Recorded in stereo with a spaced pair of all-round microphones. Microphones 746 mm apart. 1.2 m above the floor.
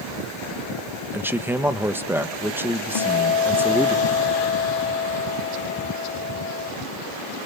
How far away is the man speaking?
About 1.2 m.